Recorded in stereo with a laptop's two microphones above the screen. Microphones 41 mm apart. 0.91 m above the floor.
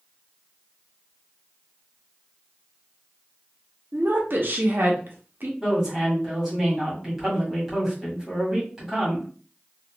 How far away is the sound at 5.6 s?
About 1.7 m.